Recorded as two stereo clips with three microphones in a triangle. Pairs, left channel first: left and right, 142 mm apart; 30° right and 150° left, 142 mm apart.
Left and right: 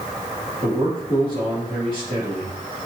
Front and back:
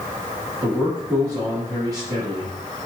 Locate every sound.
0.6 s a man speaking: 145° right, 1.6 m